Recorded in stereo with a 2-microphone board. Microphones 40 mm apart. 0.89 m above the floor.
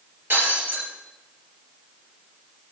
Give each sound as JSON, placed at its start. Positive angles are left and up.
{"t": 0.3, "sound": "breaking glass", "side_deg": -65, "distance_m": 3.5}